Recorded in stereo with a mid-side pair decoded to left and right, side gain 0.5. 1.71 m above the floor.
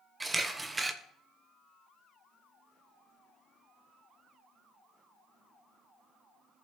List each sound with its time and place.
0.2 s a camera shutter: 15° right, 1.1 m